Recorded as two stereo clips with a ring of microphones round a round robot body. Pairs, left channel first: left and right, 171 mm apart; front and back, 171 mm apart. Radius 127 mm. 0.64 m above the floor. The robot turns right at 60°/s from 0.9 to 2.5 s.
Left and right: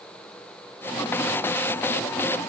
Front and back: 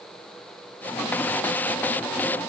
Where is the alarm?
No alarm in this recording.